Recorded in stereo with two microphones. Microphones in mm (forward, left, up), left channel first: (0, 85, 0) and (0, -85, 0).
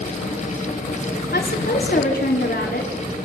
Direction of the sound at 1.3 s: 70° left (ahead or behind).